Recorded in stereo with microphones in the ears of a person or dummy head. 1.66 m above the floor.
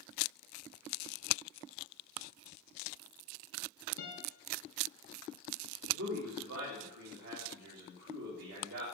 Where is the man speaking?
70° right (ahead or behind), 3 m.